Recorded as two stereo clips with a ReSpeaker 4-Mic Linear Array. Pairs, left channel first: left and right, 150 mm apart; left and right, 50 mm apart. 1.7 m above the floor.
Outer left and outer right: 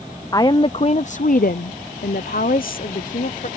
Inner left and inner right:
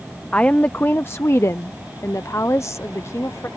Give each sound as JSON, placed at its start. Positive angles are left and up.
{"t": 0.3, "sound": "a woman speaking", "side_deg": 25}